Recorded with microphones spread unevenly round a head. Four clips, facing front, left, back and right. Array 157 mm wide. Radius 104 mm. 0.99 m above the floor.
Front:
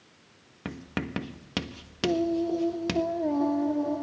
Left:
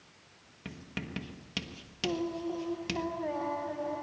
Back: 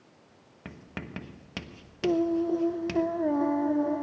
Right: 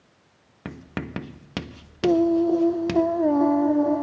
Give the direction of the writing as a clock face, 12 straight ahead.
1 o'clock.